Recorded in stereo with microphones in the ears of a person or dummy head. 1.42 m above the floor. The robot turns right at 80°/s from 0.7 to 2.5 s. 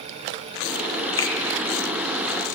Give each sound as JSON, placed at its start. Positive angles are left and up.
{"t": 1.2, "sound": "a finger snap", "side_deg": 15, "distance_m": 0.5}